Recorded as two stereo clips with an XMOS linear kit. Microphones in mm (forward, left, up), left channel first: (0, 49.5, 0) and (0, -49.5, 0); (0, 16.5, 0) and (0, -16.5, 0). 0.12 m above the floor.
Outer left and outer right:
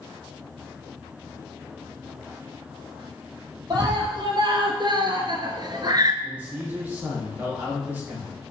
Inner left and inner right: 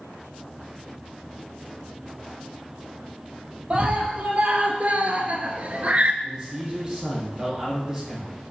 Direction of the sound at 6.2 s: 20° right (ahead or behind).